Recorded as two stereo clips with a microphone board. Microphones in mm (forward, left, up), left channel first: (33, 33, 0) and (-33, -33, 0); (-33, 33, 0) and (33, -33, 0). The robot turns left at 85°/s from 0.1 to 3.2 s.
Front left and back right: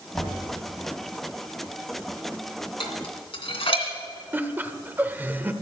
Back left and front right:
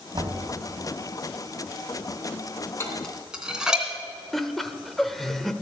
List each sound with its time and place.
0.1 s knocking: 35° right, 2.0 m; by 0.4 s 55° right, 2.0 m
2.8 s dishes clattering: 70° left, 2.5 m; by 3.9 s 35° left, 2.5 m
4.3 s laughter: 140° right, 0.8 m